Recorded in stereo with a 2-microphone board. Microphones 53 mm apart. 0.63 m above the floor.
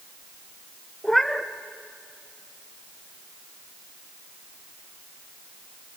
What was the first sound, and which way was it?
A cat meowing, 5° left (ahead or behind).